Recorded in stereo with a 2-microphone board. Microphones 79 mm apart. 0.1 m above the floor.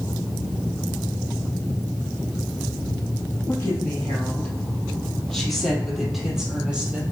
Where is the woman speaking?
30° left (ahead or behind), 3.5 m; by 7.0 s 15° right (ahead or behind), 3.5 m.